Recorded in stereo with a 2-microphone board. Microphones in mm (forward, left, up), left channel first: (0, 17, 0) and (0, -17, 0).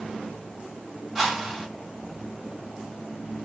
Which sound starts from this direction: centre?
A whoosh, at 1.1 s.